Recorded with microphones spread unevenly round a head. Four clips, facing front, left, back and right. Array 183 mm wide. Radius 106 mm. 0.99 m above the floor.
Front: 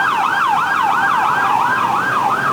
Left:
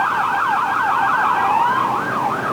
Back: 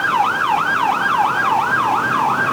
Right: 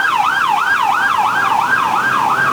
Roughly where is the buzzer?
I don't hear a buzzer.